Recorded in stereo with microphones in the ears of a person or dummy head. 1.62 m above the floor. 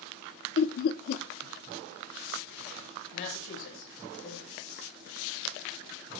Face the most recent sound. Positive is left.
turn(degrees=70)  # may be behind; listen again after turning